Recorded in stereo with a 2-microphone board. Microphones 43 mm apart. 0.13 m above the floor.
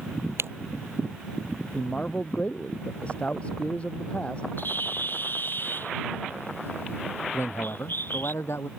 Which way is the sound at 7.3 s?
75° left (ahead or behind).